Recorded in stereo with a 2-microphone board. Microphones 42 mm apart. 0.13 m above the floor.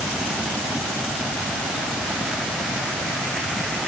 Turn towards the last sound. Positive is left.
No sound to turn to.